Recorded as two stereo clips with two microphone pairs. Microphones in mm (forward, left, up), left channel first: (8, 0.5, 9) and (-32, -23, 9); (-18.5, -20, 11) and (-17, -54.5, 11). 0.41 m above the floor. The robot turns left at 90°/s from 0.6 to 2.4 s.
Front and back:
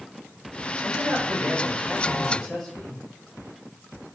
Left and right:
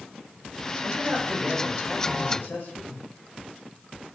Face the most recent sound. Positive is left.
turn(degrees=115)